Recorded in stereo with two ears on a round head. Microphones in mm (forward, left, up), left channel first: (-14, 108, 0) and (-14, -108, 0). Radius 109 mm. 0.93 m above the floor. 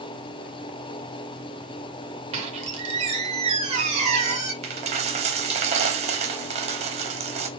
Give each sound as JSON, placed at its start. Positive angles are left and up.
{"t": 2.3, "sound": "a squeak", "side_deg": -25, "distance_m": 1.2}
{"t": 4.6, "sound": "a dropped coin", "side_deg": -25, "distance_m": 0.5}